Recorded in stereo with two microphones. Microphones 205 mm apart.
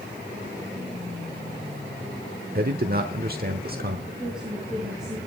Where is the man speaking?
50° right (ahead or behind), 1.1 m.